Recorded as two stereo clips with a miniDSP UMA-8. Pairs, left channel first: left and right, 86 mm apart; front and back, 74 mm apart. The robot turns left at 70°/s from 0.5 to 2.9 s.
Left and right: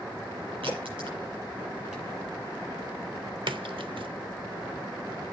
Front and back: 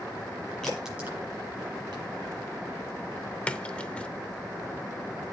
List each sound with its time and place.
0.6 s a crack: 80° right, 6 m; by 2.0 s straight behind, 6 m
3.5 s a splash: 75° right, 0.7 m